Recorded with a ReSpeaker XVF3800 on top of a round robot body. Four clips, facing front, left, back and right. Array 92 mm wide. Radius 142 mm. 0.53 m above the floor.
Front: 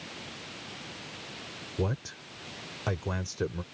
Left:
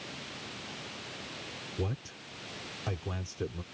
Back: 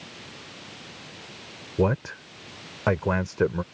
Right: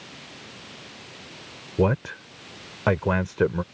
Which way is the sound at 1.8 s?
125° right.